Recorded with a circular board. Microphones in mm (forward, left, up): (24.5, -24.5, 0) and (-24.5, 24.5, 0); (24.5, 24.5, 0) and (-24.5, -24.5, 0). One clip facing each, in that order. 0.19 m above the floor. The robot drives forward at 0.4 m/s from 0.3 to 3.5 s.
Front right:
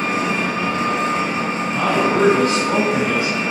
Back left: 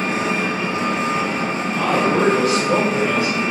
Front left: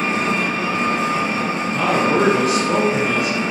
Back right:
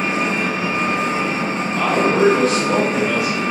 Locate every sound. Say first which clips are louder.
0.0 s an engine running: front right 1 dB, even; 60° right, 1.4 m; by 3.5 s 135° right, 1.5 m
1.7 s a man speaking: even, even; 25° right, 1.4 m; by 3.4 s 65° right, 1.1 m